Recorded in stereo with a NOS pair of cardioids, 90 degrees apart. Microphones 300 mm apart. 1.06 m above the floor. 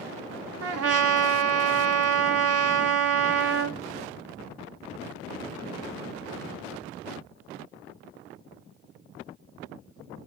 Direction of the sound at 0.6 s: 50° right.